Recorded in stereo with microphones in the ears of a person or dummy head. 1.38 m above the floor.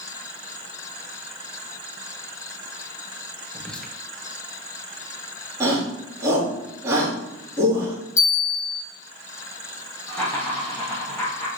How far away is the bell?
About 2.5 m.